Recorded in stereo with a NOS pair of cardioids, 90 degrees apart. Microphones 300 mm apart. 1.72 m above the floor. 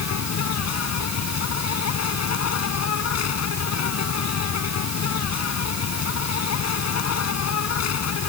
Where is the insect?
60° left.